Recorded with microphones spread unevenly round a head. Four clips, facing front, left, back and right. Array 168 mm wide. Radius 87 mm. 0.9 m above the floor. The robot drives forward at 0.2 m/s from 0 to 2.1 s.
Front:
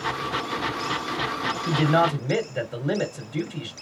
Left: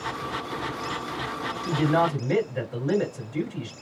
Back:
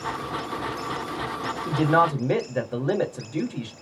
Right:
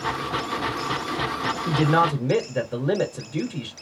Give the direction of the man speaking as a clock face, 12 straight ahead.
4 o'clock.